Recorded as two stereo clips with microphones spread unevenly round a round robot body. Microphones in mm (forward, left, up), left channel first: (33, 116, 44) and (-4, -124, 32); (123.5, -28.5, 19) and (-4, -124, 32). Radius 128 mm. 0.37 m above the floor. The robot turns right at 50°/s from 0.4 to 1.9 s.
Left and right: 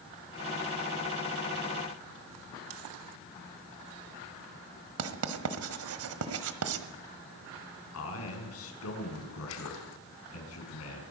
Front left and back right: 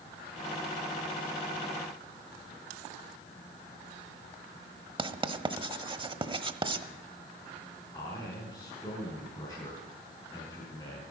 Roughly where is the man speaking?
Left.